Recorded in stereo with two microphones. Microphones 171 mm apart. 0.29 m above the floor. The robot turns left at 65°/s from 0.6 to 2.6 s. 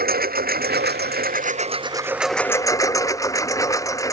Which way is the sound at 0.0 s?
70° right.